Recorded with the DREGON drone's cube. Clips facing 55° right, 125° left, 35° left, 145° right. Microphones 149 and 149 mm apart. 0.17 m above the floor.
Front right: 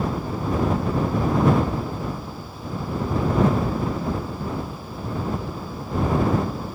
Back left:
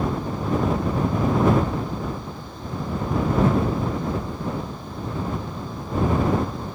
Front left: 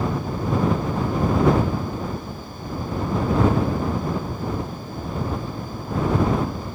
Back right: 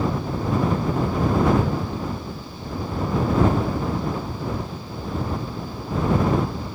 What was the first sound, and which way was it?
Only background noise.